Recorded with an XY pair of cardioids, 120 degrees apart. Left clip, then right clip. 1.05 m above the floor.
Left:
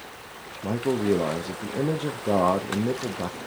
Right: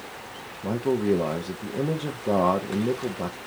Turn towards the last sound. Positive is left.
turn(degrees=5)